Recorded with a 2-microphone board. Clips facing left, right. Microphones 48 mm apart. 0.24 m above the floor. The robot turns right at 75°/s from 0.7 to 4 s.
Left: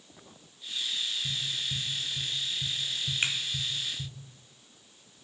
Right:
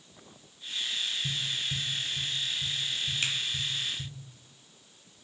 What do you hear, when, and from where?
1.2 s tapping: 40° right (ahead or behind), 0.9 m; by 4.1 s 15° left (ahead or behind), 0.9 m
3.2 s a finger snap: 25° left (ahead or behind), 0.9 m